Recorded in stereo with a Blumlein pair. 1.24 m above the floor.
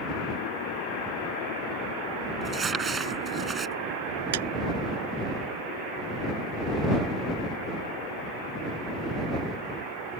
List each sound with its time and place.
2.4 s crumpling: 15° right
4.3 s a clap: 55° right